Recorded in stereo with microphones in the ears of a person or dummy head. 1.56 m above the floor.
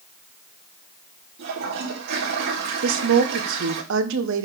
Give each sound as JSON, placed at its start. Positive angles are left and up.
{"t": 1.4, "sound": "a toilet flushing", "side_deg": -60, "distance_m": 1.8}
{"t": 2.8, "sound": "a woman speaking", "side_deg": -65, "distance_m": 1.2}